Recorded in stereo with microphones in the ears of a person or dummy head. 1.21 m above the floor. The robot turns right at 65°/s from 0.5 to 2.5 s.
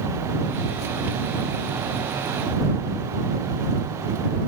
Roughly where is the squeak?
I don't hear a squeak.